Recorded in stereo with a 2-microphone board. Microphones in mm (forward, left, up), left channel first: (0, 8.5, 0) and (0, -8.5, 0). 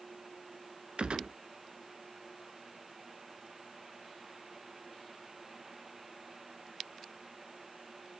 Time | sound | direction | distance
1.0 | a gunshot | 80° right | 0.6 m